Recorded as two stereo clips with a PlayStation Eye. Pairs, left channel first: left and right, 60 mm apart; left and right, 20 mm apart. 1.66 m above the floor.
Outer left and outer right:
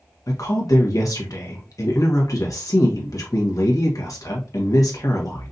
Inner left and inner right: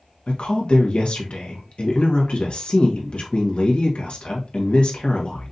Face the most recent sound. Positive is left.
turn(degrees=65)  # may be behind; listen again after turning